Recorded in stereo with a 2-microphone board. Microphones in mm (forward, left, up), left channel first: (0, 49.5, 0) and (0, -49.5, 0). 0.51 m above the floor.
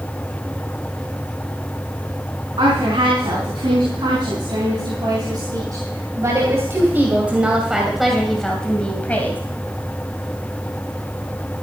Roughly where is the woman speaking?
Right.